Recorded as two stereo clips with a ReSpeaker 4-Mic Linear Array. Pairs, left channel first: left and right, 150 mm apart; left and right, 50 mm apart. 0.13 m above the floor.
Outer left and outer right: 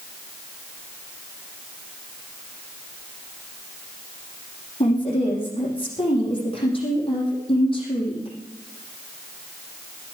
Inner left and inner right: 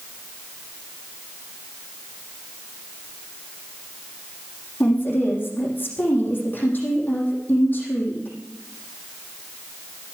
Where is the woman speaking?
35° left (ahead or behind), 6.5 m.